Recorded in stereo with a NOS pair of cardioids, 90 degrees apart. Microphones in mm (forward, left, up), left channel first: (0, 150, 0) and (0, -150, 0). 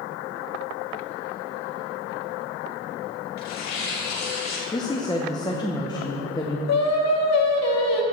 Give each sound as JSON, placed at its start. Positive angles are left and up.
{"t": 3.4, "sound": "tearing paper", "azimuth_deg": 60, "distance_m": 1.8}
{"t": 4.7, "sound": "a woman speaking", "azimuth_deg": 15, "distance_m": 0.7}
{"t": 6.7, "sound": "singing", "azimuth_deg": 60, "distance_m": 0.9}